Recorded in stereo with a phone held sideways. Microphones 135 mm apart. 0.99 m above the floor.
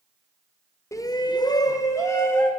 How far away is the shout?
About 0.6 m.